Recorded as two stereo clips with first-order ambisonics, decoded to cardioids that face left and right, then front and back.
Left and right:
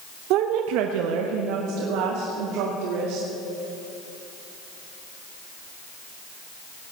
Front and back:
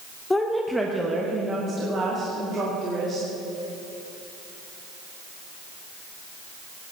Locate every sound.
0.3 s a woman speaking: 80° right, 0.8 m; by 3.3 s 115° right, 3 m